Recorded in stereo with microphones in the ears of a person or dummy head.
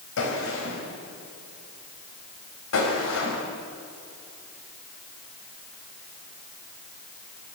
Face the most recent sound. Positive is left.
turn(degrees=80)